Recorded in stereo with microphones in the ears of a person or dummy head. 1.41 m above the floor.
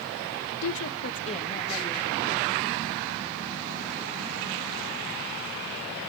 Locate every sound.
0.6 s a woman speaking: 75° left (ahead or behind), 1.2 m; by 2.5 s 5° left (ahead or behind), 3 m